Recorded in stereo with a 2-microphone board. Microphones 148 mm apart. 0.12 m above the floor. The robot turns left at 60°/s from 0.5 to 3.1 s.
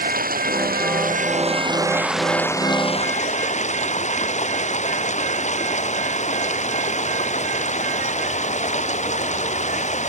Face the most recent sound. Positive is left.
turn(degrees=125)